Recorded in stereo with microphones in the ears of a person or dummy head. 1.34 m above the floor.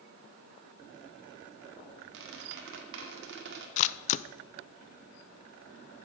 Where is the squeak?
70° right (ahead or behind), 1.9 m.